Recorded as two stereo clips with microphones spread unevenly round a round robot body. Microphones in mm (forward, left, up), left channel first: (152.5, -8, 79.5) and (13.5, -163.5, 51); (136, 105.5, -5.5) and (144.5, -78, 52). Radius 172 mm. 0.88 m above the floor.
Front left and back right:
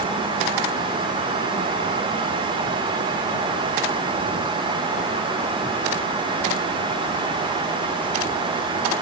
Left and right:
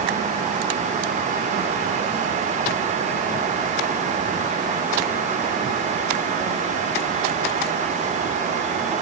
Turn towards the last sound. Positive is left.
No sound to turn to.